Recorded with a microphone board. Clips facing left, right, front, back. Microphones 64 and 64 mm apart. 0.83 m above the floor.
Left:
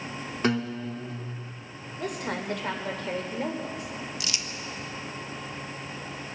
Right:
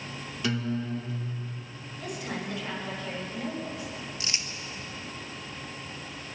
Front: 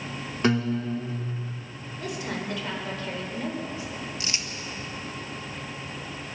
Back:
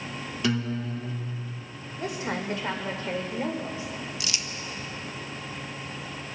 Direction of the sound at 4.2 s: 45° right.